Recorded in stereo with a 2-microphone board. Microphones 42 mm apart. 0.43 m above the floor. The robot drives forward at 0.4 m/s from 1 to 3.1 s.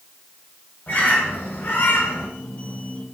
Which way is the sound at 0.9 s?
45° left (ahead or behind).